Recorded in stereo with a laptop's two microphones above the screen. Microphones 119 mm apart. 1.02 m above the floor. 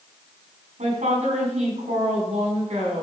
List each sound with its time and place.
0.8 s a woman speaking: 80° right, 3.5 m